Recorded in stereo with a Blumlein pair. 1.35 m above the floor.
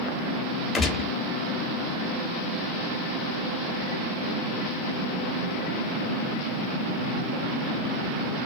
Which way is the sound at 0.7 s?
15° left.